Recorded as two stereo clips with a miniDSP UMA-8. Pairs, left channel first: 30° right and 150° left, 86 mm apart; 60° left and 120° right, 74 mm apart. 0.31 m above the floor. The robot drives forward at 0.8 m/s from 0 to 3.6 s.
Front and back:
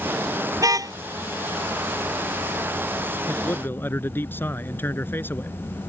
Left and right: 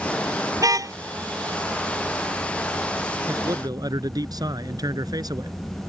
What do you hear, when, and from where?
0.6 s a car horn: 160° right
3.3 s a man speaking: 90° right; by 5.5 s 95° right